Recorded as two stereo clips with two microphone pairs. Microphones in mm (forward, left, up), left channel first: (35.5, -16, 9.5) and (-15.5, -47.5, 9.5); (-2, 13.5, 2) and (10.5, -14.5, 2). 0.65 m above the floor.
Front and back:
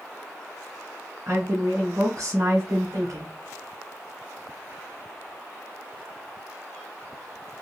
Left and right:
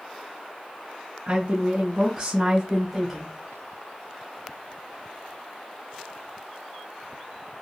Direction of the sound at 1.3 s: 115° right.